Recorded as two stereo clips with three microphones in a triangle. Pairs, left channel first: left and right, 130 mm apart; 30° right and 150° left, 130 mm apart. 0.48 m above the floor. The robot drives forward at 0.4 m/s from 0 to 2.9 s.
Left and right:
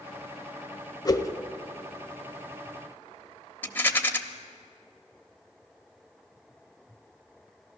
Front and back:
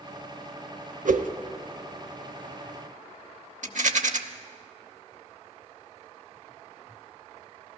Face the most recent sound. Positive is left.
turn(degrees=165)